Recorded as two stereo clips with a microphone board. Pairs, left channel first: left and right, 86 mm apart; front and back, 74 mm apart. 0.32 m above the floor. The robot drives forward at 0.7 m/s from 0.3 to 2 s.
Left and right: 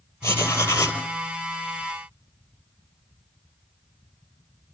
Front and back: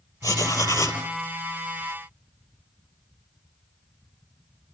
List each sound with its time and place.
0.2 s writing: 30° left, 3 m; by 1.0 s 35° left, 3 m